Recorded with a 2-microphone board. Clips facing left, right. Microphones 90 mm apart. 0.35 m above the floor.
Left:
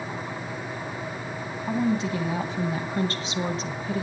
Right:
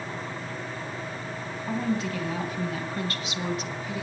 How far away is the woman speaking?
About 2.5 m.